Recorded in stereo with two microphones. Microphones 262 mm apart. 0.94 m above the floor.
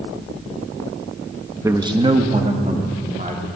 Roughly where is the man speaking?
Centre.